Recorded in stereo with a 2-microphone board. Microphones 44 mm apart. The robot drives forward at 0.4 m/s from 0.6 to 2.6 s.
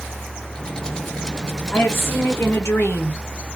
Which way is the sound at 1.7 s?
60° left (ahead or behind).